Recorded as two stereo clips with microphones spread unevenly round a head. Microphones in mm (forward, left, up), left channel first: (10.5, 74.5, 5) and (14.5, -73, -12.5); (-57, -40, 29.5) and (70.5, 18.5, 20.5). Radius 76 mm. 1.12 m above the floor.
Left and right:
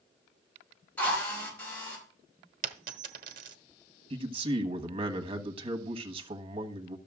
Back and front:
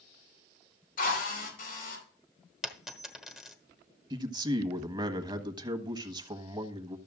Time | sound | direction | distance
1.0 | a drill | 170° left | 4.5 m
2.6 | a dropped coin | 65° right | 1.1 m
4.1 | a man speaking | 35° right | 1.4 m